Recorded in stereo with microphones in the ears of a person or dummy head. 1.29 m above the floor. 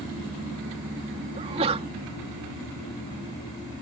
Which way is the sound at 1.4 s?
30° right (ahead or behind).